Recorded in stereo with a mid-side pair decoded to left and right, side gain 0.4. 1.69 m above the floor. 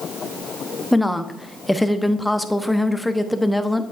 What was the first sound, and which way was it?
A woman speaking, 5° left.